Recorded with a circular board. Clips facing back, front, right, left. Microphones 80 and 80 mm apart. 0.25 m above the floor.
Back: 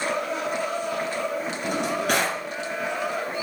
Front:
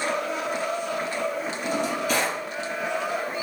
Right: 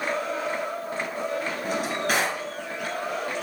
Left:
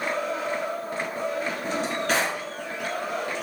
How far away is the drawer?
About 1.7 m.